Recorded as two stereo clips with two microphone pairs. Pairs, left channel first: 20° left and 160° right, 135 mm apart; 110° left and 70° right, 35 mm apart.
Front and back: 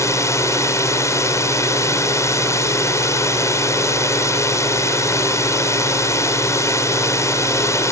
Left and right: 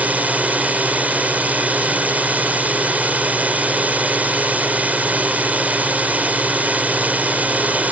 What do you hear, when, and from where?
0.0 s a drone: 40° right